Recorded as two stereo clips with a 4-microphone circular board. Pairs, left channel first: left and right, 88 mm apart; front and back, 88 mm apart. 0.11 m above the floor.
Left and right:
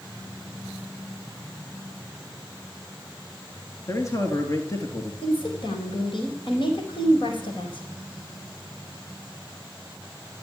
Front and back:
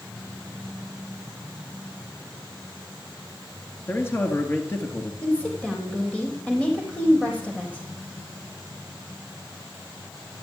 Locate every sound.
3.9 s a man speaking: 55° left, 1.6 m
5.2 s a woman speaking: 75° left, 4 m